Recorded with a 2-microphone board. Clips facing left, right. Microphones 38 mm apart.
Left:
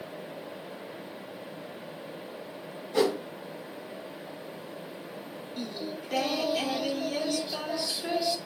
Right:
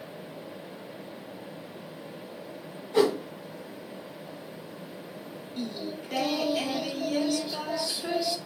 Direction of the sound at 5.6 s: 5° left (ahead or behind).